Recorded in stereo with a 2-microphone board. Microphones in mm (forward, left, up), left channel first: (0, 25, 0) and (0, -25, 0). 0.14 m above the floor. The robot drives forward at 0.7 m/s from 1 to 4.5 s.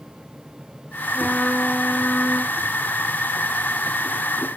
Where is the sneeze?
I don't hear a sneeze.